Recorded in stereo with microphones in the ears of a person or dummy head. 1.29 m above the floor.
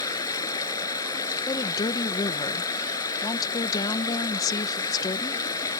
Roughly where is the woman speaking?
Left.